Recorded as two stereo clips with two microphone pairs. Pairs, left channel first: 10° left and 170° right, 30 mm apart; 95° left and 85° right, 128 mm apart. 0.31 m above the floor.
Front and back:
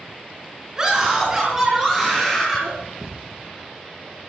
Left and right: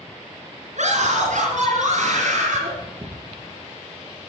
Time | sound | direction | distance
0.8 | a scream | 100° right | 4.5 m
3.0 | a thud | 40° right | 2.5 m